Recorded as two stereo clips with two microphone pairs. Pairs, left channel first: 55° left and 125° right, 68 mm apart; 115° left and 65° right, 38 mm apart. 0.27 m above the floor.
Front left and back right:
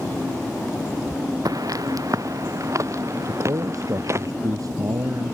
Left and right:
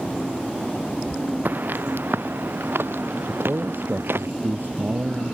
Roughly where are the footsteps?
Right.